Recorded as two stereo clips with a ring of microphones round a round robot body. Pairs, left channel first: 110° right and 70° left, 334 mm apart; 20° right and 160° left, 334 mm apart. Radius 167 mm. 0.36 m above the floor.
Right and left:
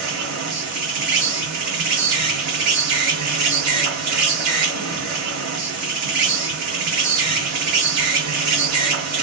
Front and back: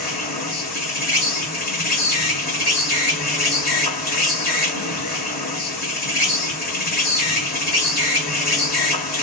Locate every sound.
0.0 s an insect: 40° left, 1.9 m